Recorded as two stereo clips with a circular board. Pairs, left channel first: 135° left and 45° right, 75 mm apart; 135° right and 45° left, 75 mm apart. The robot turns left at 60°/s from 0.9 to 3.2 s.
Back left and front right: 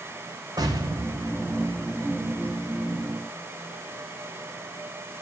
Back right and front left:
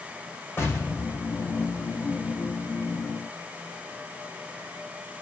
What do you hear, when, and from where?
0.6 s an explosion: 80° right, 3 m; by 2.1 s 150° right, 3 m